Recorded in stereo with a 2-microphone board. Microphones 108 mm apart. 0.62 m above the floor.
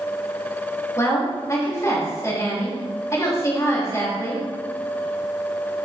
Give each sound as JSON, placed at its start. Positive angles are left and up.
{"t": 1.0, "sound": "a woman speaking", "side_deg": 30, "distance_m": 3.5}